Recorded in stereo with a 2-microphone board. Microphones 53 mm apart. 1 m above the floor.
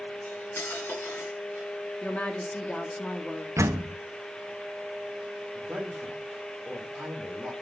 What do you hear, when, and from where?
0.2 s cutlery clinking: 45° left (ahead or behind), 7 m
2.0 s a woman speaking: 20° left (ahead or behind), 2 m
3.6 s a door slam: 60° right (ahead or behind), 0.7 m
5.5 s a man speaking: 15° right (ahead or behind), 3.5 m